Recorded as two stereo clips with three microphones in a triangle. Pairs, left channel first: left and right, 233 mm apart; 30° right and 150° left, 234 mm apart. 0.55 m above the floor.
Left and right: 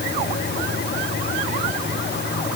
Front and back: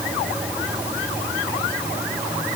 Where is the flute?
No flute in this recording.